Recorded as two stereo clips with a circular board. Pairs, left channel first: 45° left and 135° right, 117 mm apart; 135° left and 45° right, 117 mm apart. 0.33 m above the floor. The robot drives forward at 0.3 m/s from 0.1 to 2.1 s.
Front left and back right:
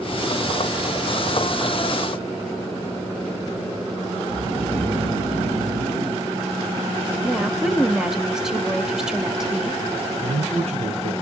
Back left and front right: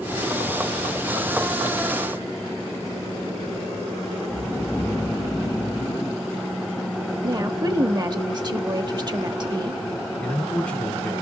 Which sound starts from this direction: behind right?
A man speaking, at 10.2 s.